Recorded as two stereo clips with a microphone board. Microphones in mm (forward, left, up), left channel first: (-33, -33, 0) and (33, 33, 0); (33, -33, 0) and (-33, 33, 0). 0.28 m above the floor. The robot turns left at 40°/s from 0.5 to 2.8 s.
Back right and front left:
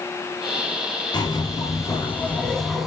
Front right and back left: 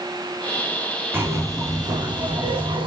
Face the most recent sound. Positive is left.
turn(degrees=135)